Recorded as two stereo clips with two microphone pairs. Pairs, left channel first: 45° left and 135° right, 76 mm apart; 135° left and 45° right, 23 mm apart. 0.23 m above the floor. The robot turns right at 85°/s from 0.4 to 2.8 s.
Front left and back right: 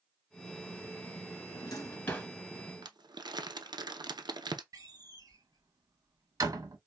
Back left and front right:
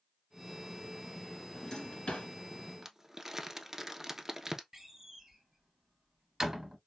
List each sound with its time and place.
1.5 s a drawer: 55° left, 1.7 m; by 2.3 s 125° left, 1.7 m
2.8 s crumpling: 115° right, 0.7 m
4.7 s a door slam: 110° right, 1.3 m